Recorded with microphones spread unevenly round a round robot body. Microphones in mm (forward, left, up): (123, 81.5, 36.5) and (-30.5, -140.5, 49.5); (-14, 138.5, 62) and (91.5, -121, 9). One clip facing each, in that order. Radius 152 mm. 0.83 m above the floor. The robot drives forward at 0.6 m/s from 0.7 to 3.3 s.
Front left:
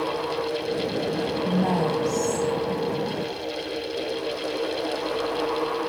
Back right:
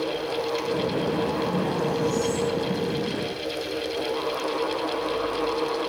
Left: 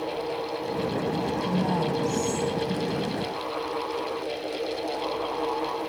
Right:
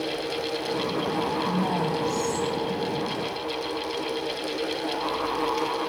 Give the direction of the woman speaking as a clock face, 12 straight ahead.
10 o'clock.